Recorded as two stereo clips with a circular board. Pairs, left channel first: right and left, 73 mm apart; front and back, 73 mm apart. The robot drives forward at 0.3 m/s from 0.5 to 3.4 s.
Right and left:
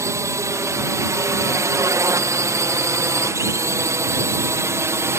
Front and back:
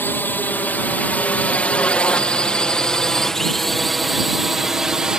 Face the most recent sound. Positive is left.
turn(degrees=105)